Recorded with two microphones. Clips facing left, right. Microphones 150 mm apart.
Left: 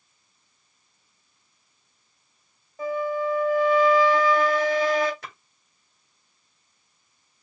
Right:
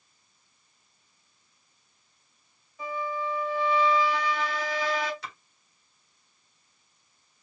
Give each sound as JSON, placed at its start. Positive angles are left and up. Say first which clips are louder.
{"t": 2.8, "sound": "a flute", "louder": "left 7 dB", "side_deg": 45, "distance_m": 1.5}
{"t": 5.2, "sound": "a splash", "louder": "even", "side_deg": 50, "distance_m": 1.5}